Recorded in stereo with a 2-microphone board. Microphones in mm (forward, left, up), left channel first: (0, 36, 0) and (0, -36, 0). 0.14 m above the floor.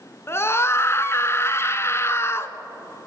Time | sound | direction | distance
0.3 | a scream | 35° left (ahead or behind) | 1.2 m